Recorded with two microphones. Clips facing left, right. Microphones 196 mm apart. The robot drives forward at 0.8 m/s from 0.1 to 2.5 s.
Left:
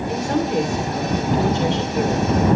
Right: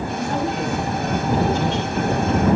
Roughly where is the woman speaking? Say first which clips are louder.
Left 5 dB; left.